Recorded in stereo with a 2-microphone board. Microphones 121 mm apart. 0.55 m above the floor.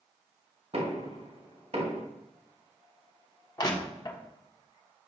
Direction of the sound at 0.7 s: 60° right (ahead or behind).